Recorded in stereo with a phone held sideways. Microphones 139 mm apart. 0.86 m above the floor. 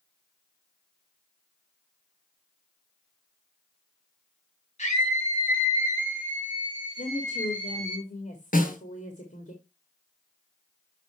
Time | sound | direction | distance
4.8 | a scream | 55° left (ahead or behind) | 4 m
7.0 | a woman speaking | 70° left (ahead or behind) | 2 m
8.5 | a snare drum | 90° left | 3 m